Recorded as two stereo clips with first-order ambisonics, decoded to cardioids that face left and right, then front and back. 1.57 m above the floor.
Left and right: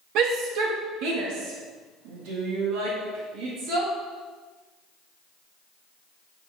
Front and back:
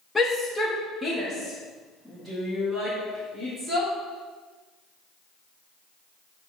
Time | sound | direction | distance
0.1 | a shout | 80° right | 0.7 m